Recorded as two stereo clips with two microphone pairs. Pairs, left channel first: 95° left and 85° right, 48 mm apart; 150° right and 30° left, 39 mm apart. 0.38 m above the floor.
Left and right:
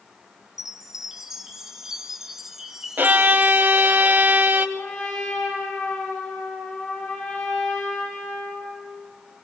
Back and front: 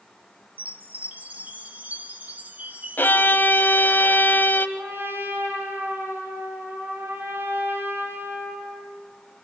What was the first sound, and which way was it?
A chime, 5° right.